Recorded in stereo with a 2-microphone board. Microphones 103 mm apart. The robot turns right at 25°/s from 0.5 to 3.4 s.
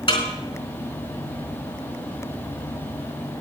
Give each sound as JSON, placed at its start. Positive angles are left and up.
{"t": 0.1, "sound": "a snare drum", "side_deg": 50, "distance_m": 4.0}